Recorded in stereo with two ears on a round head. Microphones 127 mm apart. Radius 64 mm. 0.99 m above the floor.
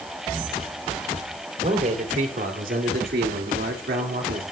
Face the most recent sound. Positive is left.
turn(degrees=-60)  # may be behind; listen again after turning